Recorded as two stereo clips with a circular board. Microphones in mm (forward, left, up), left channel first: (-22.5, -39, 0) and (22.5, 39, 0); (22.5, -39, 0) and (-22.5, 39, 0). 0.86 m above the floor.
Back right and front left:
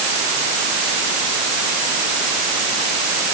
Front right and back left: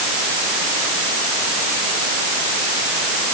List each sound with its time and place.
Only background noise.